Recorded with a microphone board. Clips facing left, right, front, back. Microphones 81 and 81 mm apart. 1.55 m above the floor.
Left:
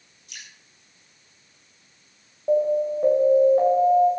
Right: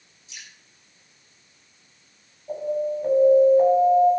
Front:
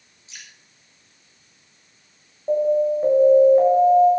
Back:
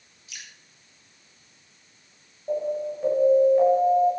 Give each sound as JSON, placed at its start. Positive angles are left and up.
{"t": 0.3, "sound": "dripping", "azimuth_deg": 65, "distance_m": 6.0}
{"t": 2.5, "sound": "an alarm", "azimuth_deg": 65, "distance_m": 7.5}